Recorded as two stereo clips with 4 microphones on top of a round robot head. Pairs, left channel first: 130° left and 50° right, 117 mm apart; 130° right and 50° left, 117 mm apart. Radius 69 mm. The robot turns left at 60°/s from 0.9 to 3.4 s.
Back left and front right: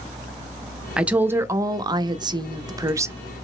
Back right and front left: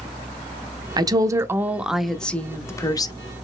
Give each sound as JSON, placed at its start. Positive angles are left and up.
{"t": 1.0, "sound": "a woman speaking", "azimuth_deg": 25, "distance_m": 0.6}